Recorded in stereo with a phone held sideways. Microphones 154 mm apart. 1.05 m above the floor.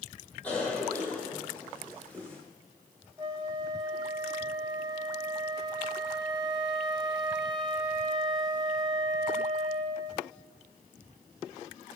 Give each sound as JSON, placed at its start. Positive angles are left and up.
{"t": 0.4, "sound": "a cough", "side_deg": 10, "distance_m": 2.5}
{"t": 3.2, "sound": "a flute", "side_deg": -25, "distance_m": 0.6}